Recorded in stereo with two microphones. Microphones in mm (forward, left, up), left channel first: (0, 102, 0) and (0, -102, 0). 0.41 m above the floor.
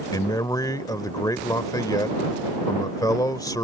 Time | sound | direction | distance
0.1 | a man speaking | 20° left (ahead or behind) | ?